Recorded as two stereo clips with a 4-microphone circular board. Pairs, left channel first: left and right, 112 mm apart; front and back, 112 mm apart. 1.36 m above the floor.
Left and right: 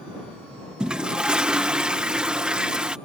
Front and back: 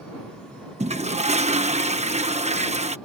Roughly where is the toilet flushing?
Behind.